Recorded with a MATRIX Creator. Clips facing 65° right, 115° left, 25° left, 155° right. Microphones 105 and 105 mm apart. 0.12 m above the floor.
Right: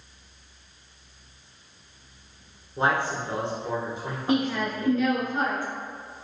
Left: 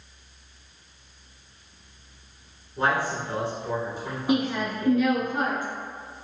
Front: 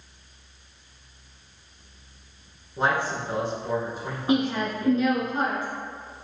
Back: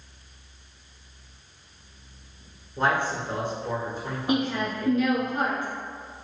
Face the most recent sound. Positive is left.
turn(degrees=50)